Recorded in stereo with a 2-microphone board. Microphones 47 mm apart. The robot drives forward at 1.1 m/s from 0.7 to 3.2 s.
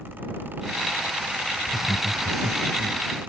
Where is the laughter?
5° right (ahead or behind).